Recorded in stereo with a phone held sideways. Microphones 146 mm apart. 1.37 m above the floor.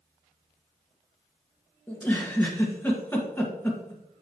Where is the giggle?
10° left (ahead or behind), 1.7 m.